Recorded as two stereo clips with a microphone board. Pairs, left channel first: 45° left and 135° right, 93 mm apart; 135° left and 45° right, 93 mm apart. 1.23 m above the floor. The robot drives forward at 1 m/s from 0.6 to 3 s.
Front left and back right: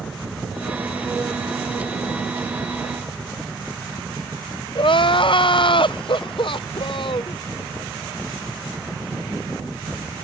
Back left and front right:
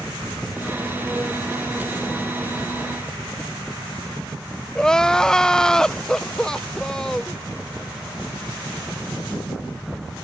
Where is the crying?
55° left.